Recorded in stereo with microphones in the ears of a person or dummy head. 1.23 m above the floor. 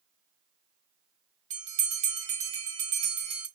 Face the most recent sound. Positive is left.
turn(degrees=-40)  # may be behind; listen again after turning